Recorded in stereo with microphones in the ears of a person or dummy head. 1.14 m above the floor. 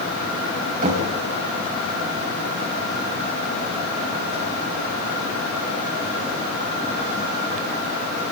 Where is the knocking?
40° right (ahead or behind), 4 m.